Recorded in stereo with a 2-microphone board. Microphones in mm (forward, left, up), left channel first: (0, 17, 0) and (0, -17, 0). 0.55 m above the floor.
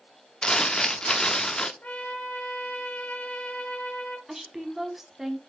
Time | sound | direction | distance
0.4 | crumpling | 20° left (ahead or behind) | 0.8 m
1.8 | a trumpet | 50° left (ahead or behind) | 3.5 m
4.3 | a woman speaking | 10° right (ahead or behind) | 1.4 m